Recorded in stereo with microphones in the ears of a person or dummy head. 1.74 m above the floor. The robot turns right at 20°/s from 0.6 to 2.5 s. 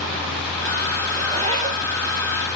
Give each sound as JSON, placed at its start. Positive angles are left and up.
{"t": 1.2, "sound": "a zipper", "side_deg": -25, "distance_m": 1.6}